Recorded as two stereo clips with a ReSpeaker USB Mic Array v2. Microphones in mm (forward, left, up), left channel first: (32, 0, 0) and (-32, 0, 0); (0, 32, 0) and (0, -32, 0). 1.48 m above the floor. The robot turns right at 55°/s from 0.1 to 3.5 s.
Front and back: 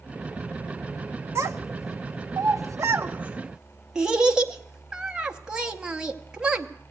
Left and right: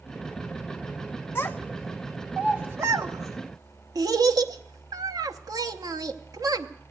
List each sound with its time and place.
1.4 s a child speaking: 140° left, 0.9 m; by 6.7 s 100° right, 0.9 m